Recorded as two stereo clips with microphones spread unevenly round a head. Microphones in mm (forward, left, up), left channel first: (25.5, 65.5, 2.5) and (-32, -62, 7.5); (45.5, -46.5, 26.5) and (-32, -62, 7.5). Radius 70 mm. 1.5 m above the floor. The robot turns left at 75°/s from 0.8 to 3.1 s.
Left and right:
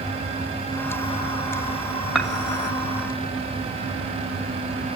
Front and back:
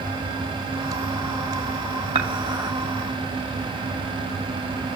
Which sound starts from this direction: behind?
Dishes clattering, at 2.1 s.